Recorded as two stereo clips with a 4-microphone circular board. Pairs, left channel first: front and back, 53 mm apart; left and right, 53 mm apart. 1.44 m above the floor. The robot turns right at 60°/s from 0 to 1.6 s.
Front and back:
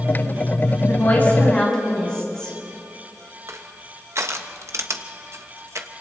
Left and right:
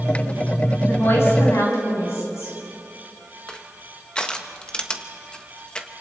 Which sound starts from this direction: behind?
Crushing, at 3.5 s.